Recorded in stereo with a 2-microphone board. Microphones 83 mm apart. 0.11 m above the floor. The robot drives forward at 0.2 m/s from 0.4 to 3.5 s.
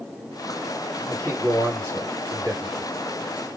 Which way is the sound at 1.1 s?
35° right (ahead or behind).